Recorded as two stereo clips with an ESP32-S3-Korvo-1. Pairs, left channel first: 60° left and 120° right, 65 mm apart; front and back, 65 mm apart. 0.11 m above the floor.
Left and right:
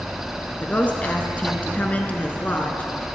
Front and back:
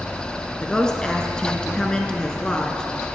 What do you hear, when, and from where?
0.6 s a woman speaking: 55° left, 1.1 m